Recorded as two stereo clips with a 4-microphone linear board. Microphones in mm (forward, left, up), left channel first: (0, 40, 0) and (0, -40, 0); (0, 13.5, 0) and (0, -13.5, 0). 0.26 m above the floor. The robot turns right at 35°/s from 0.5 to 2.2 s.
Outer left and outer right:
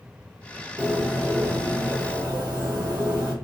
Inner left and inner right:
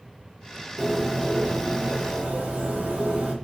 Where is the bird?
170° right, 1.6 m; by 3.3 s 120° right, 1.6 m.